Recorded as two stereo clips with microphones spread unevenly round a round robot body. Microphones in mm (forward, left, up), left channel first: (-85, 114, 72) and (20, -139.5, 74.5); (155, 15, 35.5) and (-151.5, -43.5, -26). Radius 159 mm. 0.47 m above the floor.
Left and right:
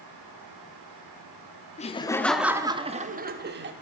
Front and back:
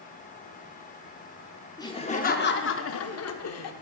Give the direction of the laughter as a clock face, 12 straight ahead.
9 o'clock.